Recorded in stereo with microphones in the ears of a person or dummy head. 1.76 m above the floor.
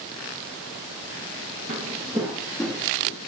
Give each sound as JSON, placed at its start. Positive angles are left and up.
{"t": 1.7, "sound": "footsteps", "side_deg": -25, "distance_m": 2.0}